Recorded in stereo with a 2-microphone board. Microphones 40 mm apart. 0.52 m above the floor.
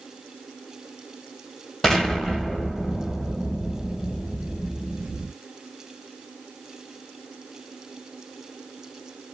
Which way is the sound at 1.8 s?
15° left (ahead or behind).